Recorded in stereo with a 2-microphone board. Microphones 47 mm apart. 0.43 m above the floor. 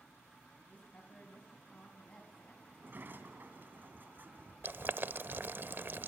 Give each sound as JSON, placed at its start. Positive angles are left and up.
{"t": 0.7, "sound": "a woman speaking", "side_deg": 30, "distance_m": 4.0}
{"t": 2.7, "sound": "a sliding door", "side_deg": -50, "distance_m": 2.5}
{"t": 4.6, "sound": "boiling", "side_deg": -45, "distance_m": 0.7}